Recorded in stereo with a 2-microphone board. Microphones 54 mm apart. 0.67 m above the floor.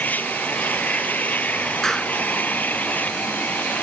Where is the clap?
10° left (ahead or behind).